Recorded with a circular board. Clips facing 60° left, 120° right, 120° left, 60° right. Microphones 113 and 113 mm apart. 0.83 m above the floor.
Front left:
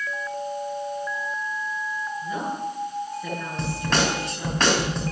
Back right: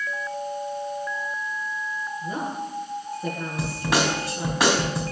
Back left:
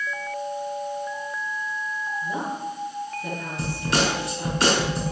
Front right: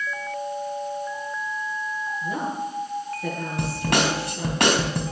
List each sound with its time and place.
2.2 s a woman speaking: 65° right, 10 m
3.6 s a snare drum: 40° right, 4.5 m